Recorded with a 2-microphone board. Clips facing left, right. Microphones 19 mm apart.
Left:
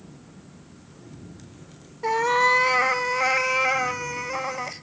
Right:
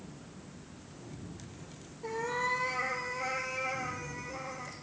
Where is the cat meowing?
45° left (ahead or behind), 0.7 m.